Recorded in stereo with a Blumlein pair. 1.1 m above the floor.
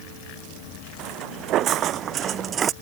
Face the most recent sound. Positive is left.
turn(degrees=-25)